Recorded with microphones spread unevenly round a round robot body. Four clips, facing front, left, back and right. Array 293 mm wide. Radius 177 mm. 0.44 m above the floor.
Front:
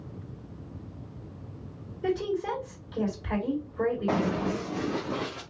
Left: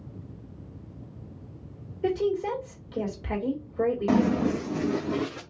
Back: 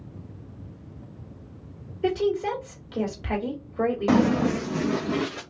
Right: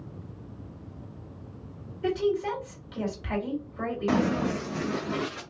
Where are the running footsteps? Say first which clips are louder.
Right 1 dB, back 7 dB; 165° left, 1.7 m; by 5.4 s 140° left, 2.5 m.